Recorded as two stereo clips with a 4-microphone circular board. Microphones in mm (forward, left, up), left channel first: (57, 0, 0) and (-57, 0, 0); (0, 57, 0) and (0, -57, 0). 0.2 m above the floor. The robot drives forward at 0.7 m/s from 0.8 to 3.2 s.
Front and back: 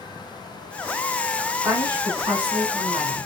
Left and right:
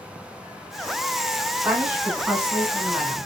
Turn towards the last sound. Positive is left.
turn(degrees=-175)